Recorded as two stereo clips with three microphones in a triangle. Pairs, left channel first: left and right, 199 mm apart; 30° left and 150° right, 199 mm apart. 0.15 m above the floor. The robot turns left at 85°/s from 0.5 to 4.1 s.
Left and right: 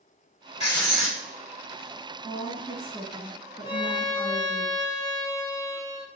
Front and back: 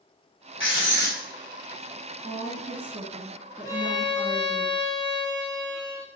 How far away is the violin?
About 0.8 m.